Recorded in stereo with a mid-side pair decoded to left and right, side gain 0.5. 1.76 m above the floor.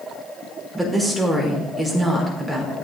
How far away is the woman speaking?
About 5 m.